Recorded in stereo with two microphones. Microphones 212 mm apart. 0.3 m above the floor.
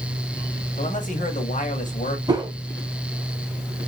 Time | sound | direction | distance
0.8 | a man speaking | 40° left (ahead or behind) | 1.4 m
2.3 | a whoosh | 20° right (ahead or behind) | 1.3 m